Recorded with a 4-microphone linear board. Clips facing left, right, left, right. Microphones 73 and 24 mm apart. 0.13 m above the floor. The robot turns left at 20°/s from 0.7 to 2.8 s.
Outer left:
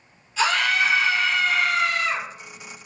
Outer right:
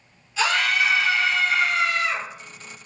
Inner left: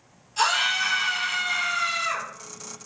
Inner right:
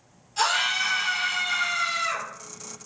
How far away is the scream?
About 1.8 m.